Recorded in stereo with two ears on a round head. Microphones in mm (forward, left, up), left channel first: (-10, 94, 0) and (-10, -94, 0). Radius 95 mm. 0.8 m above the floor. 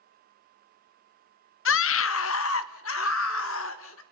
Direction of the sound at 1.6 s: 65° left (ahead or behind).